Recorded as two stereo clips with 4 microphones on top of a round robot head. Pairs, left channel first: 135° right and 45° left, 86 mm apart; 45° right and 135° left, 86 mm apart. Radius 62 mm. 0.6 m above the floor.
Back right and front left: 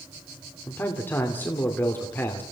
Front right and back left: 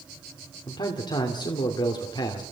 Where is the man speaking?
70° right, 2.5 m.